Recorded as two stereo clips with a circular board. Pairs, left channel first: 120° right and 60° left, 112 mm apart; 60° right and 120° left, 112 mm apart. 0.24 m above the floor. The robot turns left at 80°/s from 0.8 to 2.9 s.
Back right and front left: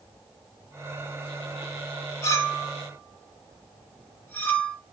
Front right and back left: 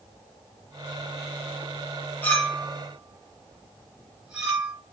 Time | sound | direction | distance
2.2 | a clink | 110° right | 0.8 m